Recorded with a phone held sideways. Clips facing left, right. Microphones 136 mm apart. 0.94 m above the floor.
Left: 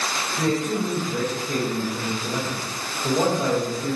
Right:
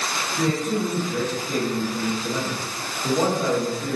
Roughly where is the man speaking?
Centre.